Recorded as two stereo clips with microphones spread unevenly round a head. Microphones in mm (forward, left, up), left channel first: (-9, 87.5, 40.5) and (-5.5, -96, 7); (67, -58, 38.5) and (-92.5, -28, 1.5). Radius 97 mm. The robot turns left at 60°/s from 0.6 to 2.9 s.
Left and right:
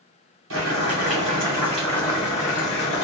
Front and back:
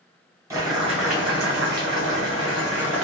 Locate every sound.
0.5 s boiling: 110° right, 1.6 m; by 3.1 s 110° left, 1.6 m